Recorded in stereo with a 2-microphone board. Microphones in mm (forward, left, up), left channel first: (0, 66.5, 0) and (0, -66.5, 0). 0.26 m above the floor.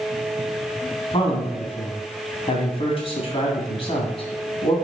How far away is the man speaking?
About 2.5 m.